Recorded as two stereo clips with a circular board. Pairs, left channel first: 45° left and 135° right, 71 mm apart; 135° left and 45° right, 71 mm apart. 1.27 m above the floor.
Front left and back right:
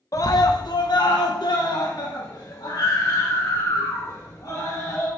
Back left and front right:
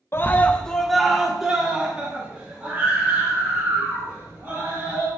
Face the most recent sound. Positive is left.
turn(degrees=15)